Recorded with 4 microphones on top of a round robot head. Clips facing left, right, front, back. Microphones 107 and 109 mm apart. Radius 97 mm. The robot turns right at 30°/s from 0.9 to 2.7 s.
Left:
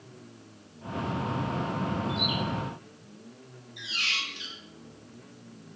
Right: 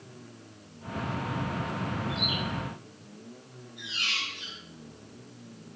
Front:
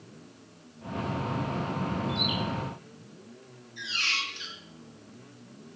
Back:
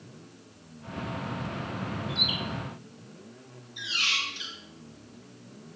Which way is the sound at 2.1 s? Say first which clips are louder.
Left 2 dB, front 4 dB; 150° left.